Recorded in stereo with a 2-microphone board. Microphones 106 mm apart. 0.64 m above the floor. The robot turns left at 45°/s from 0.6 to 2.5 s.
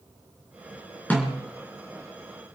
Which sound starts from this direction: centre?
A snare drum, at 1.1 s.